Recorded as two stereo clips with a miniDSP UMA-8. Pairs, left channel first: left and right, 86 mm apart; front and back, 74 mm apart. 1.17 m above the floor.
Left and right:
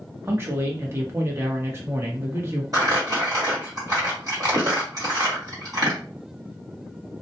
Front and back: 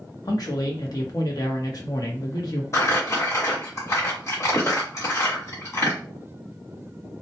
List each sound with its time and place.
0.2 s a man speaking: 30° right, 0.8 m
2.7 s crumpling: 45° right, 1.3 m